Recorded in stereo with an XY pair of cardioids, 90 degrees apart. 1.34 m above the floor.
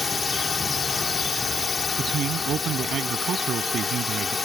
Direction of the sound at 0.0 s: 40° left.